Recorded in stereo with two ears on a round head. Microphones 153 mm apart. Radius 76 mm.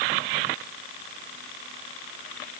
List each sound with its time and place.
Only background noise.